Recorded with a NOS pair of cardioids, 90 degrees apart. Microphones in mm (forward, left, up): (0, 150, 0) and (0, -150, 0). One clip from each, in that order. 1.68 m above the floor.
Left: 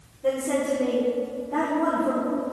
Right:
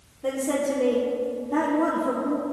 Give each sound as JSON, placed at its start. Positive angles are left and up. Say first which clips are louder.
{"t": 0.2, "sound": "a woman speaking", "louder": "left 1 dB", "azimuth_deg": -20, "distance_m": 1.4}